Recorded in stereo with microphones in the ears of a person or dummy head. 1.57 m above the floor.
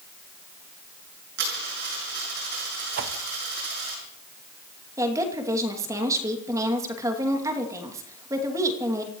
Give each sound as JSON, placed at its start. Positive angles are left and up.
{"t": 1.4, "sound": "a dropped coin", "side_deg": -55, "distance_m": 6.5}
{"t": 3.0, "sound": "a whoosh", "side_deg": -45, "distance_m": 1.2}
{"t": 5.0, "sound": "a woman speaking", "side_deg": -15, "distance_m": 2.5}